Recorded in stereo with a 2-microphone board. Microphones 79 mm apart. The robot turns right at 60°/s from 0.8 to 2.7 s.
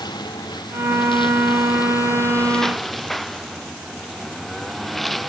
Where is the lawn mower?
65° left; by 5.3 s straight behind.